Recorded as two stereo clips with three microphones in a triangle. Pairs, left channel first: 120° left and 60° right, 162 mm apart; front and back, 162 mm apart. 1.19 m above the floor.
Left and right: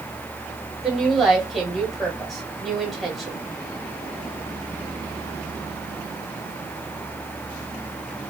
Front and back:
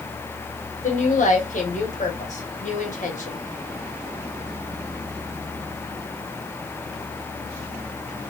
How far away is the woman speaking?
About 1.2 m.